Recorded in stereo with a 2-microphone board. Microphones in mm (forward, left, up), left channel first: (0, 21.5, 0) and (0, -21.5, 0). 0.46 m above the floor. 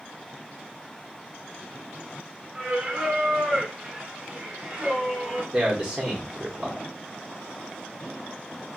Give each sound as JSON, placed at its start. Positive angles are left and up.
{"t": 2.5, "sound": "singing", "side_deg": -20, "distance_m": 1.2}
{"t": 5.5, "sound": "a man speaking", "side_deg": -20, "distance_m": 1.1}